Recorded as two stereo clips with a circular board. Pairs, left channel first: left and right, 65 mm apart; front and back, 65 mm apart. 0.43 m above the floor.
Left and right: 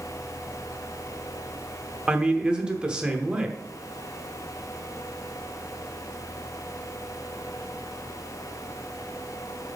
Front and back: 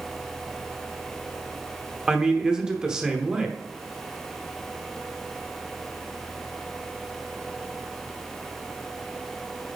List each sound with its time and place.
2.1 s a man speaking: 130° right, 0.8 m